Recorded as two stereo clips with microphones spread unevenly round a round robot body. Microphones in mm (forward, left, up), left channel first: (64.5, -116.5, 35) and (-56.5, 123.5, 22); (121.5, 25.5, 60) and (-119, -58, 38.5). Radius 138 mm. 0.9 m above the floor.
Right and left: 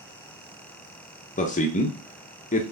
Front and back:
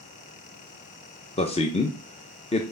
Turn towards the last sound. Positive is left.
turn(degrees=-30)